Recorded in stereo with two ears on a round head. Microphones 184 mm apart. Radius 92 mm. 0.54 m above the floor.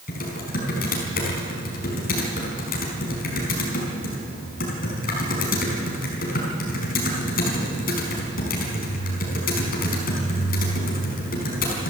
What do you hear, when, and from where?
0.1 s typing on a keyboard: 45° left (ahead or behind), 5 m